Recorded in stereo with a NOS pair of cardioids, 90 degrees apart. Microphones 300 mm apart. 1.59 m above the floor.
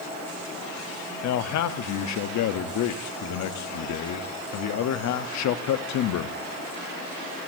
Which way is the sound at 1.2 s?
70° left.